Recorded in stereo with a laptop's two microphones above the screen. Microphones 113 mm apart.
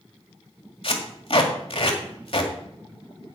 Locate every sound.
0.8 s tape being pulled: 55° left (ahead or behind), 1.8 m